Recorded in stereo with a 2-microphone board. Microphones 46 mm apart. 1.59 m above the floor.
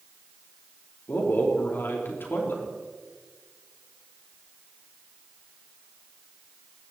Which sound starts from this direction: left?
A man speaking, at 1.1 s.